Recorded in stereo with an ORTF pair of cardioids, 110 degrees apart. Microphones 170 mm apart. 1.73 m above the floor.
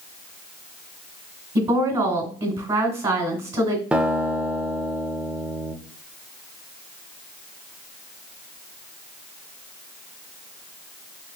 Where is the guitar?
5° right, 0.5 m.